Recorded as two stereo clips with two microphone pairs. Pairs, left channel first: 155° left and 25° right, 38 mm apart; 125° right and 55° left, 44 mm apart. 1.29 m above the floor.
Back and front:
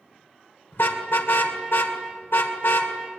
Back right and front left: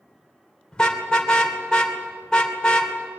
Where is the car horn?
160° left, 2 m.